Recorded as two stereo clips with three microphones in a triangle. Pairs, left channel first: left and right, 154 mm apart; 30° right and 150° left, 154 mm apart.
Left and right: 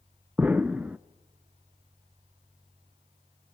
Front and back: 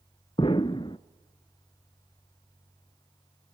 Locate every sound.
0.4 s an explosion: 15° right, 0.5 m